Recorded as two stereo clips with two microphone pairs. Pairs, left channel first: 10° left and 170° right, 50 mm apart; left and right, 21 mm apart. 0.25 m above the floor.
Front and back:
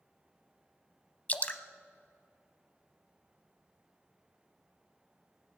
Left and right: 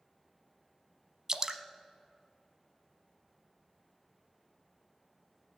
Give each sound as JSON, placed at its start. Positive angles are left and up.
{"t": 1.3, "sound": "dripping", "azimuth_deg": -40, "distance_m": 0.7}